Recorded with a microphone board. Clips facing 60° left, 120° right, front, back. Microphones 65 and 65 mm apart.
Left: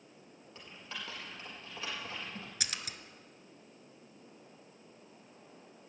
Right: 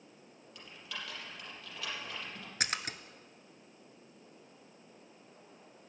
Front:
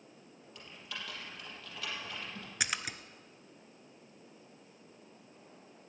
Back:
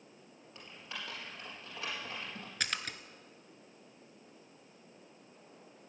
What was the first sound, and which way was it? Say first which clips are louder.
Typing on a keyboard: even, even; 115° left.